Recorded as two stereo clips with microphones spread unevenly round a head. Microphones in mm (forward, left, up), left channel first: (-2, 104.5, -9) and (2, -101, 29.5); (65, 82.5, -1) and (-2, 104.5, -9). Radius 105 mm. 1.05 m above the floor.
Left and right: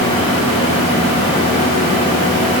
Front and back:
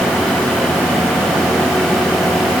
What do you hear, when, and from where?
Only background noise.